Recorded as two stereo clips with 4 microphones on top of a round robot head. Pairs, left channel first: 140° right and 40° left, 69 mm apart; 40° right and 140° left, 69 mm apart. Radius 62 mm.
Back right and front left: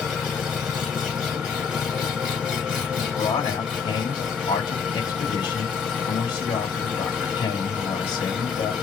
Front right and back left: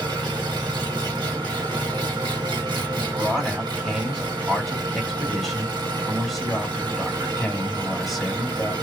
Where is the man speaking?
130° right, 2.0 m.